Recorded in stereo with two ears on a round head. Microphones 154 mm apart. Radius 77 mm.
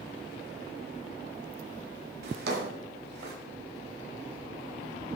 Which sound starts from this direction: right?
A drawer, at 2.2 s.